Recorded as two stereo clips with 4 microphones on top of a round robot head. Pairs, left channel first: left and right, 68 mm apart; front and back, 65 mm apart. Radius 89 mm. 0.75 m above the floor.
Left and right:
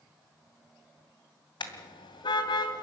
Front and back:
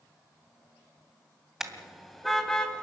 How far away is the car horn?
About 2.5 m.